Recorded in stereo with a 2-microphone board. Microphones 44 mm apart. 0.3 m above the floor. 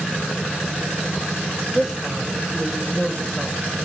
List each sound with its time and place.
1.7 s a woman speaking: 5° right (ahead or behind), 1.5 m